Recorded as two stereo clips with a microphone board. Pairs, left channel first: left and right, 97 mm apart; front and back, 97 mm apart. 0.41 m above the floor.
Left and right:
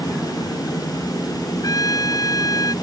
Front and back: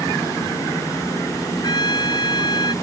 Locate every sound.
1.6 s a trumpet: 40° left